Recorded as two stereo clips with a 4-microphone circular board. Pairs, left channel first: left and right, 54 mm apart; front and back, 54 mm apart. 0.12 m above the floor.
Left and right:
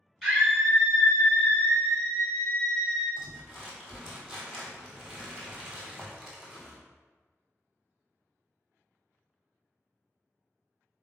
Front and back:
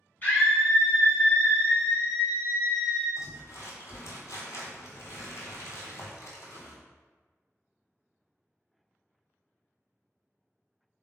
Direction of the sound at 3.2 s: 10° right.